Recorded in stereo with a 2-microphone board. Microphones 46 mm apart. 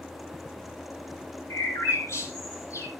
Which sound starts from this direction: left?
A bird, at 1.5 s.